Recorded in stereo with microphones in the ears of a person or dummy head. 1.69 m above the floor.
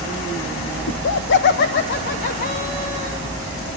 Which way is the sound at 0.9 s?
60° left (ahead or behind).